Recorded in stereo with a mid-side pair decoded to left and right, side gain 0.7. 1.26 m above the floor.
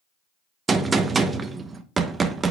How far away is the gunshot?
About 0.9 m.